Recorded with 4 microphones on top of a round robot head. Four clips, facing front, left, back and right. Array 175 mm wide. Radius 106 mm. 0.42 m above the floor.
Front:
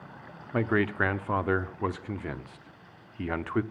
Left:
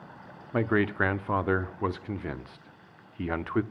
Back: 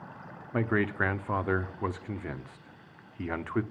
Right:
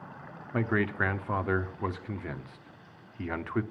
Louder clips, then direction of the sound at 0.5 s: Left 3 dB, front 2 dB; 65° left.